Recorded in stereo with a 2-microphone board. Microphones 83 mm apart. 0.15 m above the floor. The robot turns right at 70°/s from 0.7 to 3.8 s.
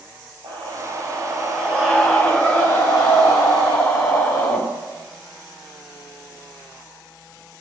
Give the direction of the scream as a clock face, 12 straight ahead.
3 o'clock.